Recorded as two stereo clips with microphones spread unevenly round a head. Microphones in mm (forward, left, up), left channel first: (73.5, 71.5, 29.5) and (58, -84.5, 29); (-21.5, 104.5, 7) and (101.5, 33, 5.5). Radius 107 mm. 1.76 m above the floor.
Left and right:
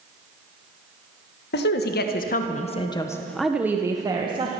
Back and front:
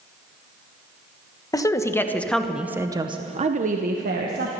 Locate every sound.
1.5 s a woman speaking: 85° left, 1.5 m; by 4.5 s 40° right, 1.5 m